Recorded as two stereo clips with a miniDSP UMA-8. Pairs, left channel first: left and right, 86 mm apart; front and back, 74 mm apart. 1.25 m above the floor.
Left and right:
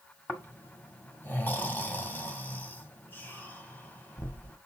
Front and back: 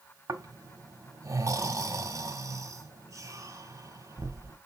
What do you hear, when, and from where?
0.3 s snoring: 155° left, 1.7 m